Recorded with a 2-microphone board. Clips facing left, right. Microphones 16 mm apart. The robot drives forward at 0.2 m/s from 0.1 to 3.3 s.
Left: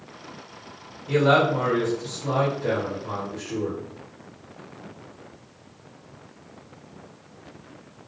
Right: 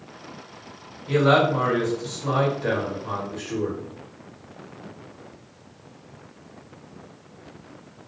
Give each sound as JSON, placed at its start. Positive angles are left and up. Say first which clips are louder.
{"t": 1.1, "sound": "a man speaking", "louder": "right 1 dB", "side_deg": -40, "distance_m": 2.0}